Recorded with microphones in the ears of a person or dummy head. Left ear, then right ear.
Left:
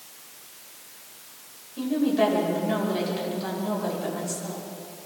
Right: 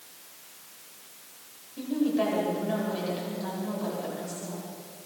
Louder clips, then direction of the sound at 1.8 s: Left 4 dB; 5° left (ahead or behind).